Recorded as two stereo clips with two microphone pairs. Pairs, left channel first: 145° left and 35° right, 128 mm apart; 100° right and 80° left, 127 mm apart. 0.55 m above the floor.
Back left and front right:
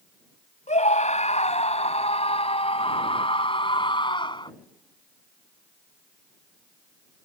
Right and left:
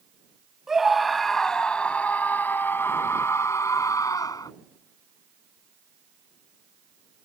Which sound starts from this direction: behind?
A scream, at 0.7 s.